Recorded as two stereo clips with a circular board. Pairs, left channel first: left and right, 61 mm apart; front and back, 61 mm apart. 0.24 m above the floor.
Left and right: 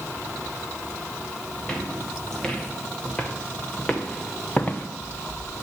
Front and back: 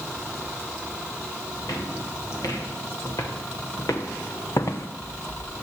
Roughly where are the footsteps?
Ahead.